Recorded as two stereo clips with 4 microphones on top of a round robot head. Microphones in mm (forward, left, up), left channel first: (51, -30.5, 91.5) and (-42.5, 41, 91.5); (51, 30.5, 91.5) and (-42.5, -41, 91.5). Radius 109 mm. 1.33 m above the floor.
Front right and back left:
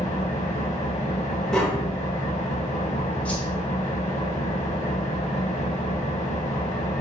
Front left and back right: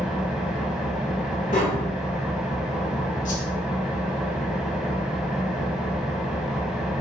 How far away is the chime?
I don't hear a chime.